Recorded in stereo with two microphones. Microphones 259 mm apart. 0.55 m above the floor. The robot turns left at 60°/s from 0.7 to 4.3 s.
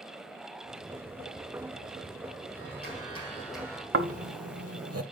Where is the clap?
60° left, 4 m; by 3.8 s 20° right, 4 m.